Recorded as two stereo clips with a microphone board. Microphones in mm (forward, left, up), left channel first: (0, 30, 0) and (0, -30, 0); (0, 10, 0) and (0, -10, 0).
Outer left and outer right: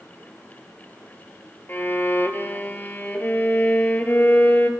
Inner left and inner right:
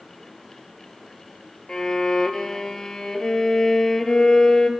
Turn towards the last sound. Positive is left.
turn(degrees=35)  # may be behind; listen again after turning